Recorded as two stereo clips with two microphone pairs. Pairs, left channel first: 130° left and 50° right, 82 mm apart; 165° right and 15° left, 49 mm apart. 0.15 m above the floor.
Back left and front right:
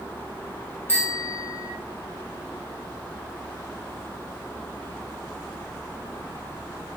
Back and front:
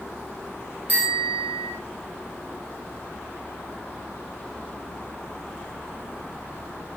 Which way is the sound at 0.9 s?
70° left.